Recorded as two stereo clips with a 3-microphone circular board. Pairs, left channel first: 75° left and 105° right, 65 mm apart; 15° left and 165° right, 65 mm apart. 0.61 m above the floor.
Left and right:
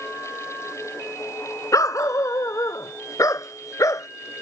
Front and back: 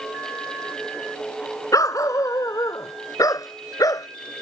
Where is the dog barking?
45° left; by 4.1 s 40° left.